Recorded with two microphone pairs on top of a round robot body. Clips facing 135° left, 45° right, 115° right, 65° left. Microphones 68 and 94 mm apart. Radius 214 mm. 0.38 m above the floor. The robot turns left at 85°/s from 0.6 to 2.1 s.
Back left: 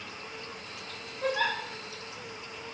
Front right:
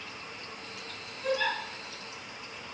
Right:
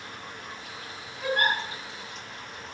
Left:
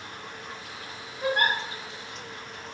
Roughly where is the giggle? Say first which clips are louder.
Back left 1 dB, left 1 dB; behind left.